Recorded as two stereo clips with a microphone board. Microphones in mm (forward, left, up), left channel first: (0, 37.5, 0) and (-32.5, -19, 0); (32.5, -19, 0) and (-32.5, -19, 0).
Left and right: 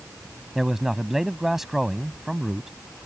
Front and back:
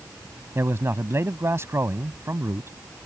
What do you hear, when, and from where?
0.6 s a man speaking: 155° left